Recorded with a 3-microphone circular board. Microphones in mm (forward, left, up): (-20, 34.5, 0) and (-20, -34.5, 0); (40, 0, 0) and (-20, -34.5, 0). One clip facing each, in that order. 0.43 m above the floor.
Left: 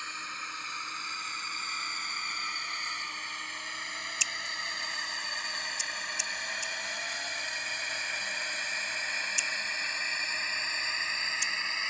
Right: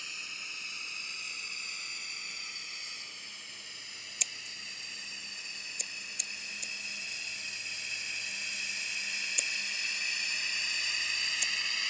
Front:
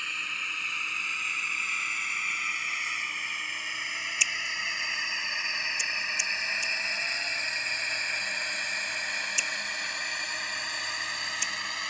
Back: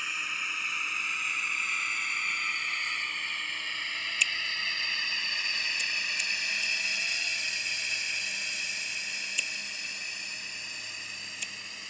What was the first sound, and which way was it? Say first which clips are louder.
A drone: left 7 dB, even; 125° left.